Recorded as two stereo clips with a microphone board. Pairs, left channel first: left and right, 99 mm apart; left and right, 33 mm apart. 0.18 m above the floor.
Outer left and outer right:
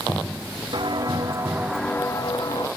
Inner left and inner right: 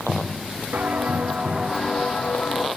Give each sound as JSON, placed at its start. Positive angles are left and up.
{"t": 0.7, "sound": "footsteps", "side_deg": -50, "distance_m": 1.1}